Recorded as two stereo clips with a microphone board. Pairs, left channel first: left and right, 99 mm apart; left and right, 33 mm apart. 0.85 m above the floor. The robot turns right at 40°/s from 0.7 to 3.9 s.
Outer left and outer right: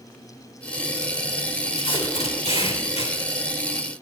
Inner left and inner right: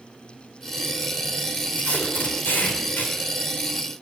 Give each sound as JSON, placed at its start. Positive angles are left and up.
{"t": 1.7, "sound": "tape being pulled", "azimuth_deg": 55, "distance_m": 3.0}